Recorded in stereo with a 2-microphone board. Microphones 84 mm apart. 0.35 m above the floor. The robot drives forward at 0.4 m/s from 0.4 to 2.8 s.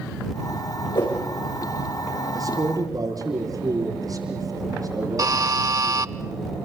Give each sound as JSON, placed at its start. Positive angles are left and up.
{"t": 0.9, "sound": "a whoosh", "side_deg": 60, "distance_m": 7.0}
{"t": 2.4, "sound": "a man speaking", "side_deg": -50, "distance_m": 6.5}
{"t": 5.2, "sound": "a buzzer", "side_deg": -45, "distance_m": 0.6}